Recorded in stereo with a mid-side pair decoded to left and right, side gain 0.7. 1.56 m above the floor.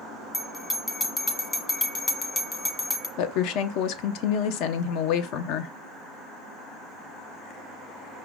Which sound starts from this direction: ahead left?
A woman speaking, at 3.2 s.